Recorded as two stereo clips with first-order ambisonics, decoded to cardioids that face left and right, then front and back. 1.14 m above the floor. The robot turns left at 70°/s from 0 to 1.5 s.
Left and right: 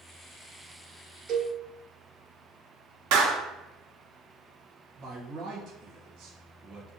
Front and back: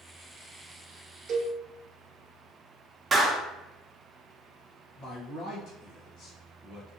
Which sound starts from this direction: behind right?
A cowbell, at 1.3 s.